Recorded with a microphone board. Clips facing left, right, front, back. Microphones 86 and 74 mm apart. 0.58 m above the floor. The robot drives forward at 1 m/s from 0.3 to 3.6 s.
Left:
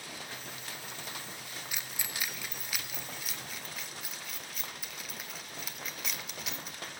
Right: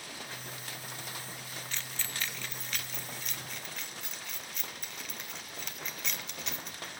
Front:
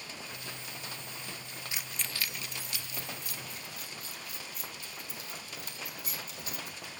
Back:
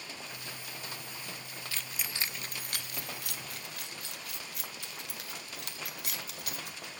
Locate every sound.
1.7 s keys jangling: 30° left, 0.6 m; by 6.9 s 175° left, 1.8 m